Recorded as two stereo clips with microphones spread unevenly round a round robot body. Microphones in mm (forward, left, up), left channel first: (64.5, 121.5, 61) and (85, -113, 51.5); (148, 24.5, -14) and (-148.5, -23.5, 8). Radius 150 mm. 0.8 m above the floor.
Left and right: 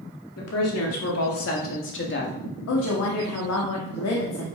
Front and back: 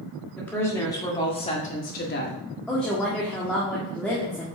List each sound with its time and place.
0.4 s a woman speaking: 95° left, 2.5 m; by 2.4 s 55° left, 1.9 m
2.7 s a woman speaking: 95° left, 1.4 m